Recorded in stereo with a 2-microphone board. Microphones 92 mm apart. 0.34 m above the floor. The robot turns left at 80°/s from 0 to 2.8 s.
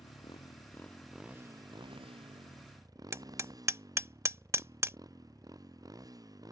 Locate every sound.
0.0 s a motorcycle: 85° left; by 6.5 s 40° right (ahead or behind)
3.1 s hammering: 30° right (ahead or behind)